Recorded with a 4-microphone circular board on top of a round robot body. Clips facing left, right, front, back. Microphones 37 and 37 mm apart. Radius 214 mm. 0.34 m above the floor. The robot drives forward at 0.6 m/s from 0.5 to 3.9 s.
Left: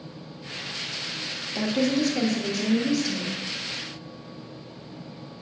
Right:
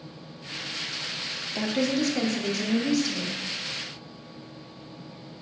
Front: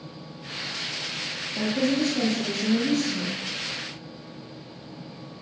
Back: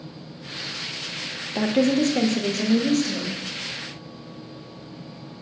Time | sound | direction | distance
1.6 | a woman speaking | 175° right | 1.2 m